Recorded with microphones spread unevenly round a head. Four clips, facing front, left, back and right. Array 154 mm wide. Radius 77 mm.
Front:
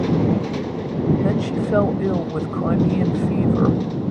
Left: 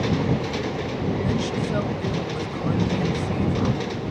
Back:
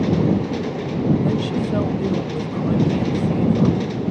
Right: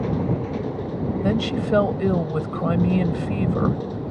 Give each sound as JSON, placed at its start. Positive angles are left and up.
{"t": 1.2, "sound": "a woman speaking", "azimuth_deg": -35}